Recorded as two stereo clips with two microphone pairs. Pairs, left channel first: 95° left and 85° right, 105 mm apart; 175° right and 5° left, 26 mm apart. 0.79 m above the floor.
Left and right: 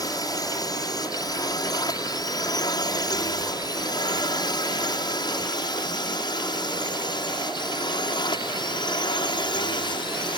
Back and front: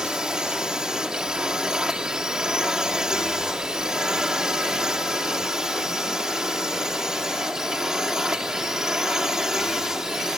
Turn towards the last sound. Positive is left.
turn(degrees=70)